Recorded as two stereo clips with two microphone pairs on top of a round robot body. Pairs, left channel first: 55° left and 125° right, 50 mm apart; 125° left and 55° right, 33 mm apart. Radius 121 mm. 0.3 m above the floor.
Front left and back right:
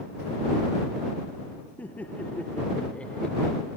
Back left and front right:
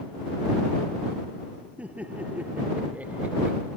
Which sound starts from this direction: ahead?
Laughter, at 1.8 s.